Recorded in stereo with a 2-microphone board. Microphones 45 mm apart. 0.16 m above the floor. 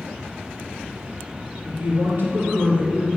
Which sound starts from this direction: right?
A woman speaking, at 1.6 s.